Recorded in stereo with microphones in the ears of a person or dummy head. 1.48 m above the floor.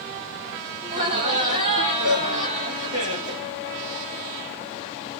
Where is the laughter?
40° right (ahead or behind), 1.3 m.